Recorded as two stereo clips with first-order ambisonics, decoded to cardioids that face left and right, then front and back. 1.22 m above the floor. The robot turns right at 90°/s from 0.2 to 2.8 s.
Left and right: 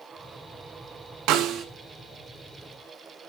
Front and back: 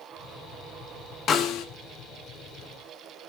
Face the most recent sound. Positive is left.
turn(degrees=75)